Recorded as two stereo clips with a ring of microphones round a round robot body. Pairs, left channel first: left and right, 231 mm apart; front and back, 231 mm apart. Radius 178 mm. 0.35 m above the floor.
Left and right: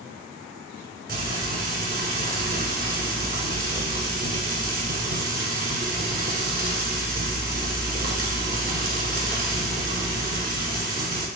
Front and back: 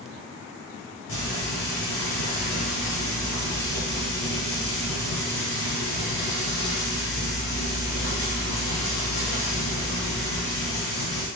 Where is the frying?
35° right, 1.0 m.